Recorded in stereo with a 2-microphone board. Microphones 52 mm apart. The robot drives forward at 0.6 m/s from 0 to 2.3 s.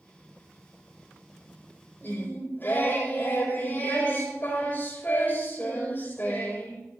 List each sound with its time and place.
2.0 s singing: 45° left (ahead or behind), 5 m